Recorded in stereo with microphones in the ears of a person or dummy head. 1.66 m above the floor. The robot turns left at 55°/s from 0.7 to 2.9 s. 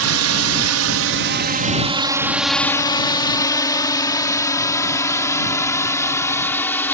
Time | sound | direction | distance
0.0 | a drone | 70° right (ahead or behind) | ?